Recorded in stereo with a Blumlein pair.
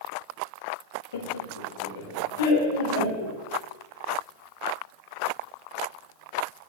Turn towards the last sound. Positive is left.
turn(degrees=70)